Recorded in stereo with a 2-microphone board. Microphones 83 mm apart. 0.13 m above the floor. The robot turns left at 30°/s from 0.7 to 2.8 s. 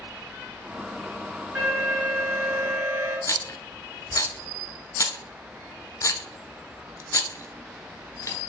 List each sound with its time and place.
1.6 s an alarm: 30° right, 2 m; by 3.2 s 65° right, 2 m
3.3 s a rattle: 40° left (ahead or behind), 0.6 m